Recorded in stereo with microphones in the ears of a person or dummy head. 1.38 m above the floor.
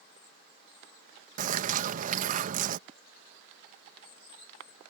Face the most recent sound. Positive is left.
turn(degrees=-40)  # may be behind; listen again after turning